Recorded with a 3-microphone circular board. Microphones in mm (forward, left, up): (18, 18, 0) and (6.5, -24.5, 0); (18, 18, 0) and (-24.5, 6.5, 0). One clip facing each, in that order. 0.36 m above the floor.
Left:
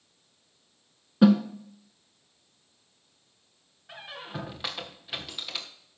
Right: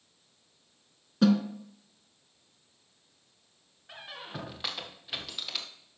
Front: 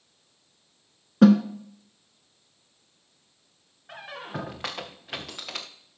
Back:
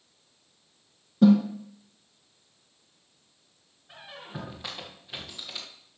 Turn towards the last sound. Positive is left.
turn(degrees=-10)